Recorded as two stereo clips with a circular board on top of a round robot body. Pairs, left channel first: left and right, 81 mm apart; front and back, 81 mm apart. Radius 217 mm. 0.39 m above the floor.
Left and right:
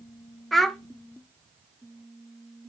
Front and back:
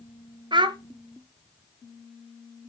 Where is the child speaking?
Straight behind, 1.5 m.